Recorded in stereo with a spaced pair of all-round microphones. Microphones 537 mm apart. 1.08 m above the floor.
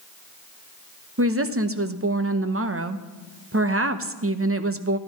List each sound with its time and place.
1.2 s a woman speaking: 25° right (ahead or behind), 0.7 m